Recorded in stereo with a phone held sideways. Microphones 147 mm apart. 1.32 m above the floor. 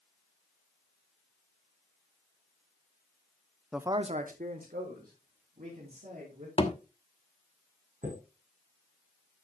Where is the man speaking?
Centre (ahead or behind), 0.6 m; by 6.5 s 80° right, 4 m.